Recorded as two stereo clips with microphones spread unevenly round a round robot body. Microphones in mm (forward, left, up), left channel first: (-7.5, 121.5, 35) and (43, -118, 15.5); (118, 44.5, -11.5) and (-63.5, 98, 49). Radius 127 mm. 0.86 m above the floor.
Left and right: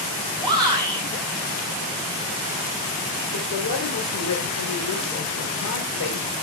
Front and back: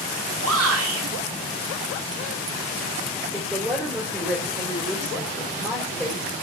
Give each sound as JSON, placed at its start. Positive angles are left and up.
{"t": 0.4, "sound": "a shout", "azimuth_deg": -150, "distance_m": 6.0}
{"t": 3.3, "sound": "a woman speaking", "azimuth_deg": 70, "distance_m": 4.0}